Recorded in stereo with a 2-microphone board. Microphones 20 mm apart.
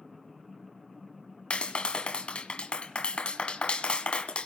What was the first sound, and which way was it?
A clap, 55° left (ahead or behind).